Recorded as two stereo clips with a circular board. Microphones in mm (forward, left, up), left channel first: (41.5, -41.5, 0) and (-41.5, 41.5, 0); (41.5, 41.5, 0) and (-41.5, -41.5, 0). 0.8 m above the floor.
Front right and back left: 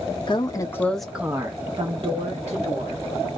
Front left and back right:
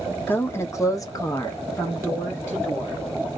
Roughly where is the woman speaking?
Ahead.